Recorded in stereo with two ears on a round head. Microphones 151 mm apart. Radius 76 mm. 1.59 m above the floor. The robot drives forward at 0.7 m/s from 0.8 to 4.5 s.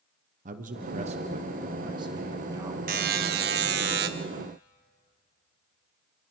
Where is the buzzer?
55° right (ahead or behind), 1.2 m; by 4.1 s 65° right (ahead or behind), 1.1 m.